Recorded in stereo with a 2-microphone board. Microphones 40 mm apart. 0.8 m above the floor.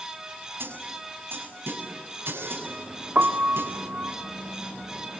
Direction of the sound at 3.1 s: 55° right (ahead or behind).